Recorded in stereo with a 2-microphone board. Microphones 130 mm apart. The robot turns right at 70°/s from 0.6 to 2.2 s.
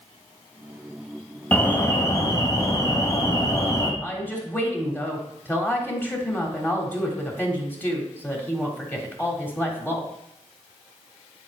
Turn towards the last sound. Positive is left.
turn(degrees=15)  # may be behind; listen again after turning